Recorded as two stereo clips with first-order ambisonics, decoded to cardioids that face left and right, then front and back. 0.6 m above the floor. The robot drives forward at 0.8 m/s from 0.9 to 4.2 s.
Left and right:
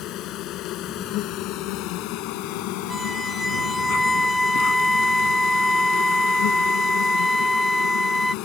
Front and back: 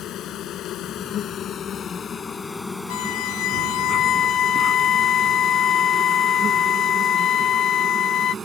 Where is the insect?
50° left; by 8.4 s 110° left.